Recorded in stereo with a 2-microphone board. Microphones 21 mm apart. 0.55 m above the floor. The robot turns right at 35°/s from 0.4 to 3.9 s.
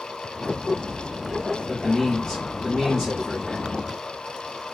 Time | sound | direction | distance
1.7 | a man speaking | 155° left | 1.4 m